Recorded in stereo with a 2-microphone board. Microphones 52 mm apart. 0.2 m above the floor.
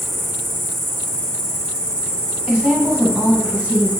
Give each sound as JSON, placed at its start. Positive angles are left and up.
{"t": 0.0, "sound": "an insect", "side_deg": 20, "distance_m": 1.1}
{"t": 2.5, "sound": "a woman speaking", "side_deg": -25, "distance_m": 1.1}